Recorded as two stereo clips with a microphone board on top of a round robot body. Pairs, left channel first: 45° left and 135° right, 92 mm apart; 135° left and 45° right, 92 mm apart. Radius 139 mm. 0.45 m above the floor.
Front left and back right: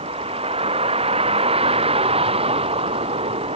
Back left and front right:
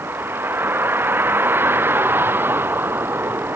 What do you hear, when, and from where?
0.0 s a vehicle: 115° right